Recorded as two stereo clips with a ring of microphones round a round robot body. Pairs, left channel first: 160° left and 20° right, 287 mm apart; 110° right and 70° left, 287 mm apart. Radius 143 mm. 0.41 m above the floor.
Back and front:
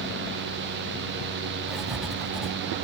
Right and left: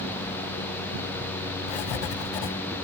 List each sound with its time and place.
1.7 s writing: 110° right, 0.9 m